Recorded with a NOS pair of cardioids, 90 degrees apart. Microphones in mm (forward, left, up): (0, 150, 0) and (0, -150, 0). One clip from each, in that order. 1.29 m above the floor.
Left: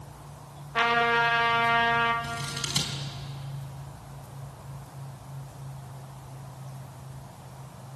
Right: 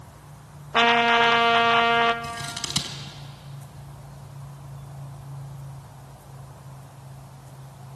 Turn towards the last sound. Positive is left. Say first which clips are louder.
# right 1 dB
turn(degrees=-25)